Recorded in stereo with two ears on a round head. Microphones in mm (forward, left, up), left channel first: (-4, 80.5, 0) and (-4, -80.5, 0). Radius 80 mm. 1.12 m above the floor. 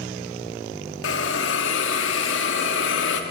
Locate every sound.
1.0 s a hiss: 75° left (ahead or behind), 2 m